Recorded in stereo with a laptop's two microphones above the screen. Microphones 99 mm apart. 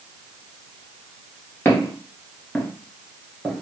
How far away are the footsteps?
About 1.1 m.